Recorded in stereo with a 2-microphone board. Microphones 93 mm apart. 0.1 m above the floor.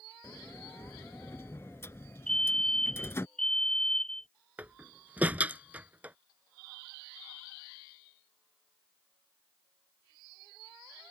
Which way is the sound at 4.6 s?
20° right (ahead or behind).